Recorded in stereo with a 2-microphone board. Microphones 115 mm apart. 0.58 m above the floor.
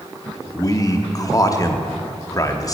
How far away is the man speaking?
About 0.7 m.